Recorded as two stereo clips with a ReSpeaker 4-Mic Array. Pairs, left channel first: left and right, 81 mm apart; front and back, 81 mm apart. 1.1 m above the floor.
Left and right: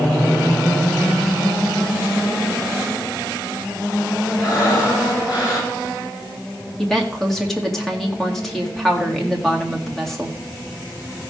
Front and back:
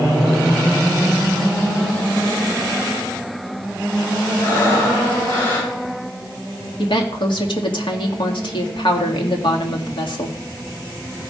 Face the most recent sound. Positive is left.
turn(degrees=5)